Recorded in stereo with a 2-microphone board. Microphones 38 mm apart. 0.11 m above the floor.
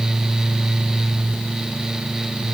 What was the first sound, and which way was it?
Only background noise.